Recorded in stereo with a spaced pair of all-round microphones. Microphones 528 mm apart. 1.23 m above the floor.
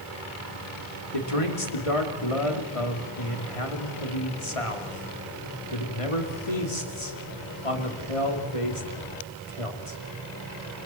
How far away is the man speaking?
About 3 m.